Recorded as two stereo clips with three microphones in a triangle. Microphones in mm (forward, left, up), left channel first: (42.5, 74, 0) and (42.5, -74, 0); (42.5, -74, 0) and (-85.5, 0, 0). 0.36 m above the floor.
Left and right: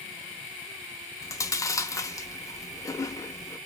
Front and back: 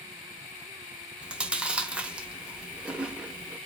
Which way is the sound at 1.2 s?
80° left.